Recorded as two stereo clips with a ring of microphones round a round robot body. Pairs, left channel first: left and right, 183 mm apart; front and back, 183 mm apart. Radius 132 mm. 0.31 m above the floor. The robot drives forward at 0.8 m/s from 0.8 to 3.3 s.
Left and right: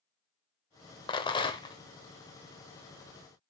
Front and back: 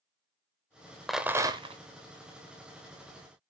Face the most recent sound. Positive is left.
turn(degrees=170)